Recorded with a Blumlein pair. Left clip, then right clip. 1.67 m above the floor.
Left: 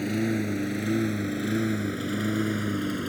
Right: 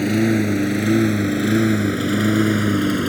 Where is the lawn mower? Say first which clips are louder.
Right 9 dB; 25° right.